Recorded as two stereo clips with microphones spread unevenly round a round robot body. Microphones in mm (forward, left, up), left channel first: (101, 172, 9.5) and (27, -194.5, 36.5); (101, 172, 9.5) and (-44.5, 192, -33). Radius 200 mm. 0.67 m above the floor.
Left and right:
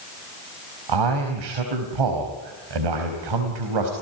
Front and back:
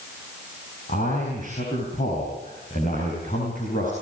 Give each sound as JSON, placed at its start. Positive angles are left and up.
{"t": 0.9, "sound": "a man speaking", "azimuth_deg": -80, "distance_m": 4.5}